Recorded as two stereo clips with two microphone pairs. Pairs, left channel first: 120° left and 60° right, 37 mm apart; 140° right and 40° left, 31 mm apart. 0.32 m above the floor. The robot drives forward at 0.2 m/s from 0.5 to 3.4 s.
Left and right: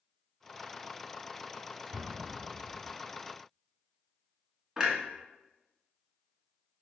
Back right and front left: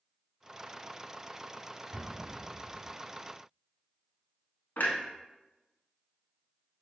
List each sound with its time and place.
1.9 s an explosion: 40° right, 0.7 m; by 2.9 s 55° right, 0.5 m
4.8 s a clunk: 140° right, 0.8 m